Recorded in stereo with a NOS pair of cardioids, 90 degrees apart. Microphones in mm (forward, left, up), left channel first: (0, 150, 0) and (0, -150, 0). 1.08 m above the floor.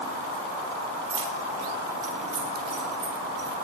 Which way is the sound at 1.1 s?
50° right.